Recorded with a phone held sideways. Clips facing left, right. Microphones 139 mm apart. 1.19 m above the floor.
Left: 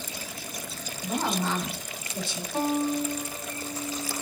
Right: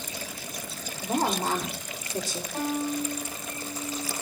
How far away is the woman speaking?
About 5 m.